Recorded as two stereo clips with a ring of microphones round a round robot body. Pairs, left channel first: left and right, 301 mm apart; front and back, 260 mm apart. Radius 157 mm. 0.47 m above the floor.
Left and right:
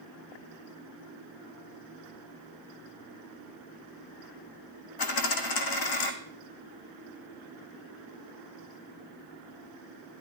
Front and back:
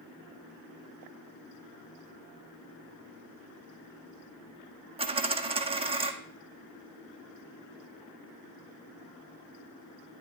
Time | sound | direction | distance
5.0 | a dropped coin | 110° left | 1.4 m